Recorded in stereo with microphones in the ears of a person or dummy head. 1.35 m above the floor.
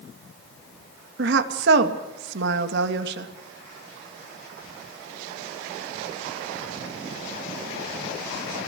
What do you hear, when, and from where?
1.2 s a woman speaking: 70° right (ahead or behind), 2.0 m